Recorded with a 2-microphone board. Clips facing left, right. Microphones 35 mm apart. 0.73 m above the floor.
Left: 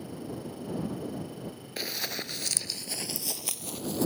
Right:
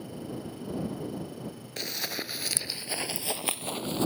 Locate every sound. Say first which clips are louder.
1.8 s running footsteps: even; 10° left (ahead or behind); by 4.1 s 40° right (ahead or behind)